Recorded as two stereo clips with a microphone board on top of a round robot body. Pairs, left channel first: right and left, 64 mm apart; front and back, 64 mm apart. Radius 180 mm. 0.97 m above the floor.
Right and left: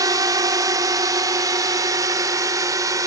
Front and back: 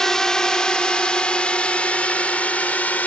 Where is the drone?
80° left; by 3.1 s 65° left.